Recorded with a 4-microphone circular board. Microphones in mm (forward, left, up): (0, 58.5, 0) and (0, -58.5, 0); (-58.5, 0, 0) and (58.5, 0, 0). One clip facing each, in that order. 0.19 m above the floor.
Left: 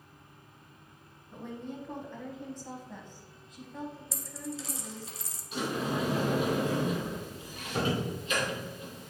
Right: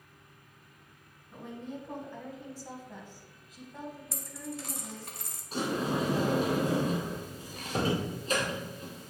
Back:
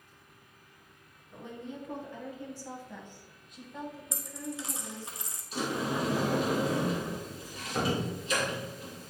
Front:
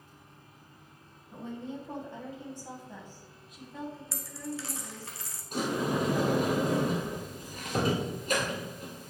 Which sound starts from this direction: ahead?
A woman speaking, at 1.3 s.